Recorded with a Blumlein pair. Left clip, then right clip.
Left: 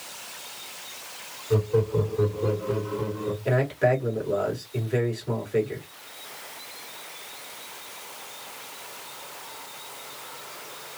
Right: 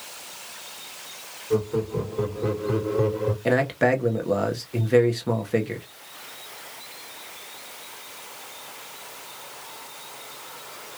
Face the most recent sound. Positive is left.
turn(degrees=-40)